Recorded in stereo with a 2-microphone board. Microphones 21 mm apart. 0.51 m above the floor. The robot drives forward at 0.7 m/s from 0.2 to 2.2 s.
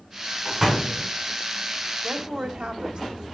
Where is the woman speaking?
70° right (ahead or behind), 2 m.